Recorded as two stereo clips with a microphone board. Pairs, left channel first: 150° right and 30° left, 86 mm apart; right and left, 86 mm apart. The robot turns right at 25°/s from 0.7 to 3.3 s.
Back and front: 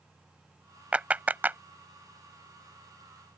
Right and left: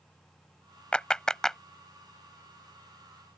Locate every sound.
0.9 s a clap: 25° right; by 1.6 s 10° right